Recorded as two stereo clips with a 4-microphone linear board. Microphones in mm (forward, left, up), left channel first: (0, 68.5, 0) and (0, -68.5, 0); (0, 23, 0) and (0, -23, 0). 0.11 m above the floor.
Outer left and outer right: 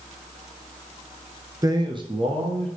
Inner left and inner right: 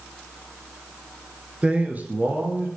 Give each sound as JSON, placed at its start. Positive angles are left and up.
{"t": 1.6, "sound": "a man speaking", "side_deg": -25, "distance_m": 1.1}